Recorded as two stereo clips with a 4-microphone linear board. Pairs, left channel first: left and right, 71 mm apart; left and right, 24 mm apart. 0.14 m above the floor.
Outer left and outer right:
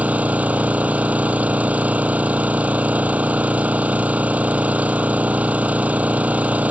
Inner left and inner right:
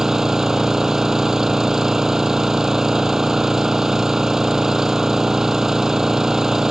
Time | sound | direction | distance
0.0 | an engine running | 20° right (ahead or behind) | ?